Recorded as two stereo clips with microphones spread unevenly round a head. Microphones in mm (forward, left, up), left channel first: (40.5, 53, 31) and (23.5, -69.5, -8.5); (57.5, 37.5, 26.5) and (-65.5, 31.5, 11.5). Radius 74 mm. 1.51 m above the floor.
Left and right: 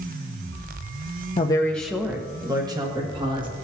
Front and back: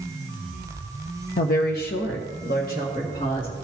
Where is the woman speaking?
35° left, 0.7 m; by 3.5 s 45° right, 2.5 m.